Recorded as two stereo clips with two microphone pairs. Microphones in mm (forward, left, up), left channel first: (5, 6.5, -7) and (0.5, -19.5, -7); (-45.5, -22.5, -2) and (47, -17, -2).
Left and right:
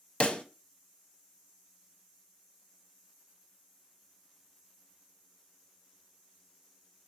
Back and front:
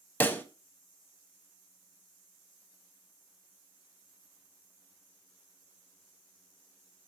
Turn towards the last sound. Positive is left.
turn(degrees=115)